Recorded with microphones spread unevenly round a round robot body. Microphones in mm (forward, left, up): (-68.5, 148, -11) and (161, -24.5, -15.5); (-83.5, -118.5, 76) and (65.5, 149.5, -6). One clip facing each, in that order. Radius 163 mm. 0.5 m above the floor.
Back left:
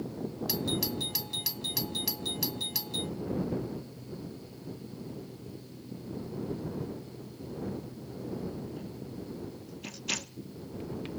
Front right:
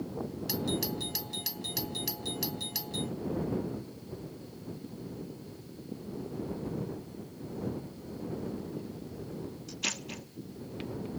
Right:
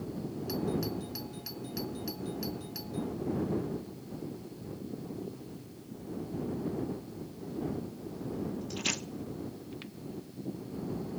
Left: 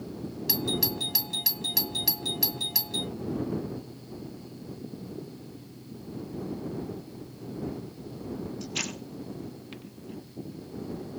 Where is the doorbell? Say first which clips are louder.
Front right 1 dB, left 1 dB; 65° left.